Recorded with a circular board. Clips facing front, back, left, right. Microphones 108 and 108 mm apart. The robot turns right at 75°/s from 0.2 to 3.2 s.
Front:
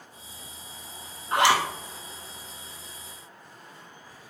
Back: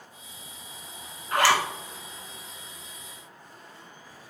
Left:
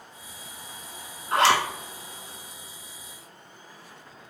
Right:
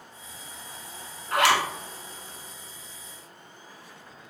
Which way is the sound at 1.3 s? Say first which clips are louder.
Front 1 dB, left 1 dB; 50° left.